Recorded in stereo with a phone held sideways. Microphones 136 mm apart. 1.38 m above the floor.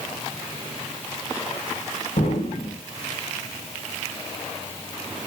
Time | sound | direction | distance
2.2 | an explosion | 75° left (ahead or behind) | 5 m